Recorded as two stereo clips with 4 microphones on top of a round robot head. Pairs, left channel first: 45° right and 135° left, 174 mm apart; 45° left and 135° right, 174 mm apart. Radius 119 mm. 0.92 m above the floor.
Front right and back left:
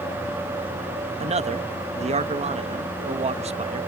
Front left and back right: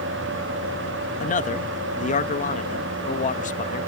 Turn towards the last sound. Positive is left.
turn(degrees=85)